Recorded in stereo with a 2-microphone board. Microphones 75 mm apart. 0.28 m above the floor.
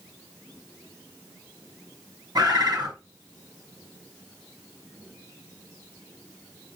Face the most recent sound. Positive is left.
turn(degrees=-60)  # may be behind; listen again after turning